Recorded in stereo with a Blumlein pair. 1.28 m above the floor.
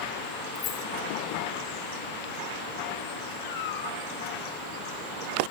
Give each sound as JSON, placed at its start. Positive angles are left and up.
{"t": 0.6, "sound": "keys jangling", "azimuth_deg": 30, "distance_m": 2.0}
{"t": 3.4, "sound": "a cat meowing", "azimuth_deg": 55, "distance_m": 3.5}